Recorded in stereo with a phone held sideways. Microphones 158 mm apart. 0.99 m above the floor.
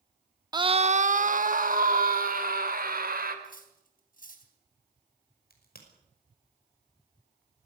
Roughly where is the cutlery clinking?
Left.